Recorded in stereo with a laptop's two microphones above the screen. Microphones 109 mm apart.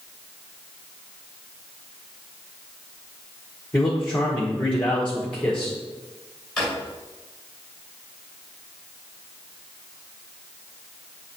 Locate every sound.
3.7 s a man speaking: 10° left (ahead or behind), 1.4 m
6.6 s a drawer: 5° left (ahead or behind), 2.5 m